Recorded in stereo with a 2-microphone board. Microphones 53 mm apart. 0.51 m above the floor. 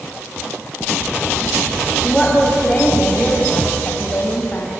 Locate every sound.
2.0 s a woman speaking: 5° left (ahead or behind), 3.5 m; by 4.7 s 35° left (ahead or behind), 3.5 m